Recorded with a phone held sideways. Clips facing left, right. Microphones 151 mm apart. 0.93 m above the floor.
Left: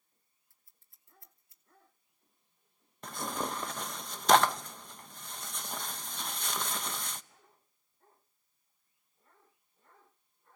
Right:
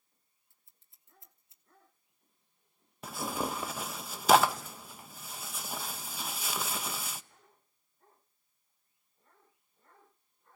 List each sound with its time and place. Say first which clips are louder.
0.5 s scissors: right 1 dB; 20° right (ahead or behind), 1.8 m
3.0 s tearing paper: right 2 dB; 5° right (ahead or behind), 0.5 m